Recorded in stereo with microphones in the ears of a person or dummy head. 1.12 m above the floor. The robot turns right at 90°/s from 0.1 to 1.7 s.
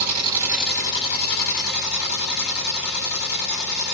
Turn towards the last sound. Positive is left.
turn(degrees=95)